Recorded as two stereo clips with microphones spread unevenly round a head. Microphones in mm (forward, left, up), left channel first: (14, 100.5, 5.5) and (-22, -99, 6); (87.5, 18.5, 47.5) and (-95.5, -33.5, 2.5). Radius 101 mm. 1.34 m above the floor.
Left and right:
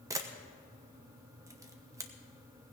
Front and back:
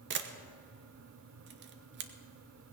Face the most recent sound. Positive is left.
turn(degrees=-175)